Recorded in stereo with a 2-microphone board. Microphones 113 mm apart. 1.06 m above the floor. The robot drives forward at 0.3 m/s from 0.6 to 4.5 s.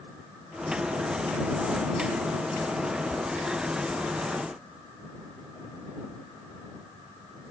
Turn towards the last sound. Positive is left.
No sound to turn to.